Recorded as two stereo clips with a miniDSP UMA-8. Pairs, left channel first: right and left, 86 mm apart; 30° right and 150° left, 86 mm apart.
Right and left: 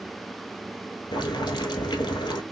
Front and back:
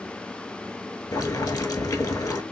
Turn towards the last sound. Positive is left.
turn(degrees=-75)